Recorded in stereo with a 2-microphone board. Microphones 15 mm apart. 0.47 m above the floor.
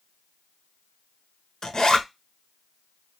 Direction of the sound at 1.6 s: 45° left (ahead or behind).